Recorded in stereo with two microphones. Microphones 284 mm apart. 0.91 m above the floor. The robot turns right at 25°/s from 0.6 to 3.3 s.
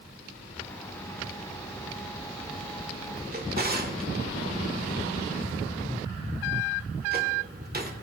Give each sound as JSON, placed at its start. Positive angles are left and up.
{"t": 3.3, "sound": "a drawer", "side_deg": -35, "distance_m": 1.9}